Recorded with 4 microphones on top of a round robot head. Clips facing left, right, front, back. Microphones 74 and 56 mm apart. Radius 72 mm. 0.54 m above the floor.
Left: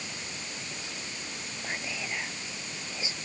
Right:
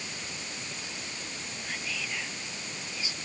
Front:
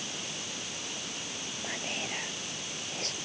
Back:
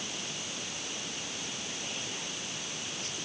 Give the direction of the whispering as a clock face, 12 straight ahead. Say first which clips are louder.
Left 2 dB, front 3 dB; 11 o'clock.